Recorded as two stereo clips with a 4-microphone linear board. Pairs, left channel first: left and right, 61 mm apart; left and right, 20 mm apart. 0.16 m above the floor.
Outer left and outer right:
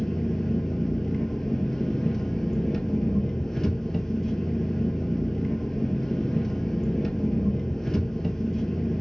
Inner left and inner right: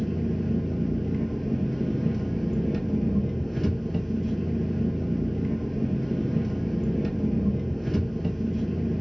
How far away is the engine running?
About 0.7 m.